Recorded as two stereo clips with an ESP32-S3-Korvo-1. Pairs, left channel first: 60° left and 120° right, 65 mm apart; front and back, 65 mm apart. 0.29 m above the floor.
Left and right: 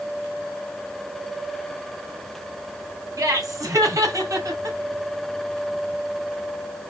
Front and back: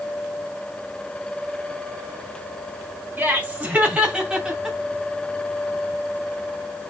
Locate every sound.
3.2 s laughter: 120° right, 3 m; by 4.8 s 95° right, 3.5 m